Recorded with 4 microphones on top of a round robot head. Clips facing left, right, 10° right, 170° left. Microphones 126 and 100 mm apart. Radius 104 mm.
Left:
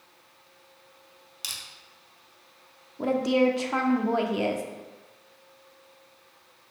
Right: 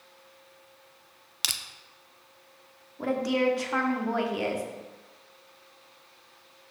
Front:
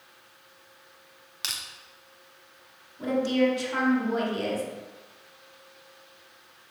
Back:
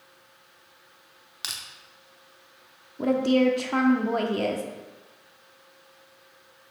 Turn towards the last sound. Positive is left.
turn(degrees=155)